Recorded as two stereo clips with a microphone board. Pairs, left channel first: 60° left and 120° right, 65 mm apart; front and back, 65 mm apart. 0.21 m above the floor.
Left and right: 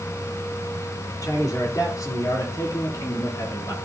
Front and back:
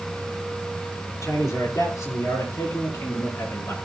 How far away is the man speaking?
About 6 m.